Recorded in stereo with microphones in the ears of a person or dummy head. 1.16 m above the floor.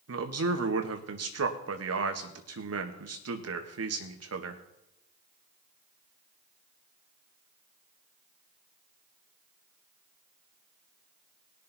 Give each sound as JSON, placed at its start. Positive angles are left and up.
{"t": 0.1, "sound": "a man speaking", "side_deg": -70, "distance_m": 1.5}